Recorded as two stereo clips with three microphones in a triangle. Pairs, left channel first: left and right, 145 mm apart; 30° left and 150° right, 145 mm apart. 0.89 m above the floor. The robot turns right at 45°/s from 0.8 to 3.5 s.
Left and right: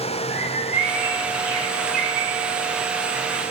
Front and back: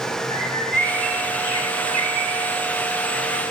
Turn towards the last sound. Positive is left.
turn(degrees=-125)